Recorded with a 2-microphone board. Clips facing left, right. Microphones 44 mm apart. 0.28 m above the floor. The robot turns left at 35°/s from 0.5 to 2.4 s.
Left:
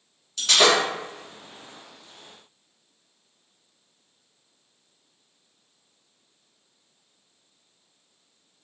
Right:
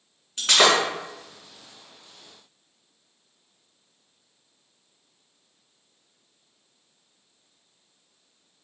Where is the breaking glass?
35° right (ahead or behind), 2 m; by 0.7 s 30° right (ahead or behind), 2 m.